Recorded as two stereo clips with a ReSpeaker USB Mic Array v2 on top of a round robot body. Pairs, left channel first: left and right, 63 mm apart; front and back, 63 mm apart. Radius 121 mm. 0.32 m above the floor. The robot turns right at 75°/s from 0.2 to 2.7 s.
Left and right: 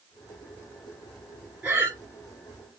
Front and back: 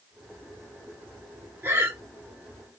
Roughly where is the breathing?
Behind right.